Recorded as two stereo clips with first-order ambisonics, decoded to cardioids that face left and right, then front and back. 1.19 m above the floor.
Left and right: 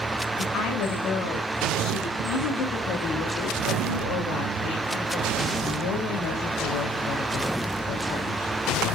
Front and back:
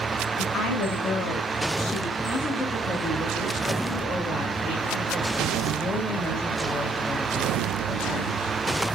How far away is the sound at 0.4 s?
About 6 m.